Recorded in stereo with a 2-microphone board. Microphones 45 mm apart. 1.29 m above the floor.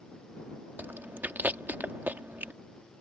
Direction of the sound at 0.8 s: 45° right (ahead or behind).